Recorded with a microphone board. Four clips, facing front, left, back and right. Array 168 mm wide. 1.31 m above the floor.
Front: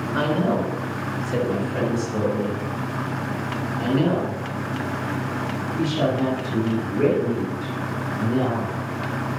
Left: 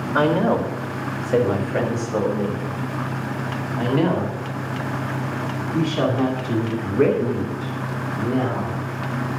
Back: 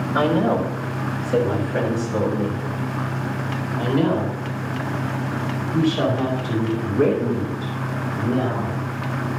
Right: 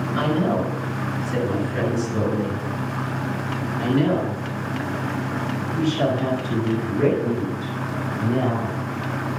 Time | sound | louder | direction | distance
0.1 | a woman speaking | left 4 dB, back 3 dB | 105° left | 5 m